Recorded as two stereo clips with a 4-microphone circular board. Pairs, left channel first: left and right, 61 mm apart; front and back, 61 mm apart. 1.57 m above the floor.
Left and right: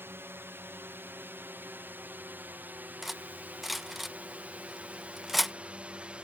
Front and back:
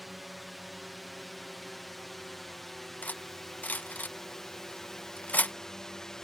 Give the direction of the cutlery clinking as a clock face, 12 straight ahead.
12 o'clock.